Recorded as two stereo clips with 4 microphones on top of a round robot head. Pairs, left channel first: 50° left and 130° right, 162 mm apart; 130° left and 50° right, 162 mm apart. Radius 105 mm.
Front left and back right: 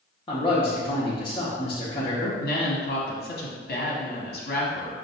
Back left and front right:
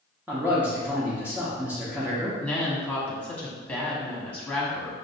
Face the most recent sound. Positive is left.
turn(degrees=40)